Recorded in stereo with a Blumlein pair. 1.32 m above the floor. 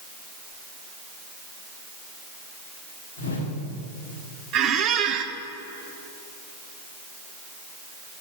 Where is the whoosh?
65° left, 2.5 m.